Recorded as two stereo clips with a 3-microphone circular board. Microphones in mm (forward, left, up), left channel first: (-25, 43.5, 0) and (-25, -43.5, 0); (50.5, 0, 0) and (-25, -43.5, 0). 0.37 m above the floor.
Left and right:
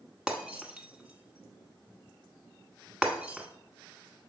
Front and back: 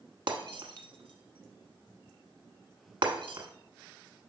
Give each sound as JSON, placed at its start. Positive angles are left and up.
{"t": 0.3, "sound": "breaking glass", "azimuth_deg": -170, "distance_m": 0.9}